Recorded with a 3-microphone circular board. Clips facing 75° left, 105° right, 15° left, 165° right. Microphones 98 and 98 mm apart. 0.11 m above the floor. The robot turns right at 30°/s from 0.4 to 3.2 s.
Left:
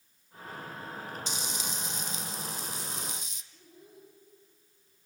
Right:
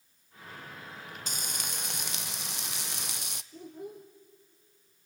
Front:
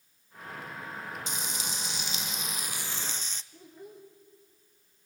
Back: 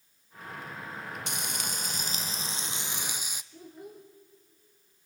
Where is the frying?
145° right, 0.7 m; by 3.4 s 85° right, 0.7 m.